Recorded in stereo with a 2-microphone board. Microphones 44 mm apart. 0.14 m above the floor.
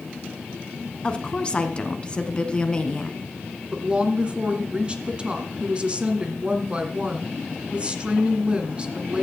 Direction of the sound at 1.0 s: 25° left (ahead or behind).